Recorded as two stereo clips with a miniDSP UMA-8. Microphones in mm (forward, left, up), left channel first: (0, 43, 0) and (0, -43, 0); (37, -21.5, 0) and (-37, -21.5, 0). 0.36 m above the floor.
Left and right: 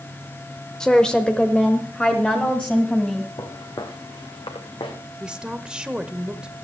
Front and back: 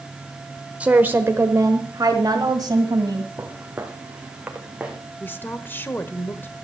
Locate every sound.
0.8 s a woman speaking: 155° left, 0.9 m; by 3.3 s 165° left, 2.5 m
3.4 s footsteps: 125° left, 2 m; by 5.0 s 105° left, 3 m
5.2 s a woman speaking: 20° right, 1.1 m